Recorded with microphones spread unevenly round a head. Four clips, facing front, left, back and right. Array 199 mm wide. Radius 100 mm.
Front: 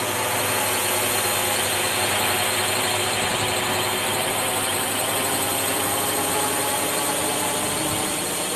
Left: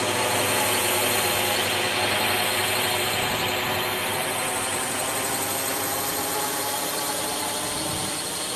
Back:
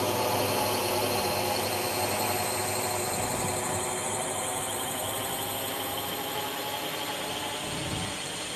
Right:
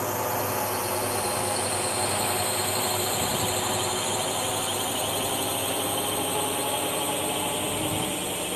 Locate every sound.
0.0 s a drone: 95° left; by 8.6 s 10° right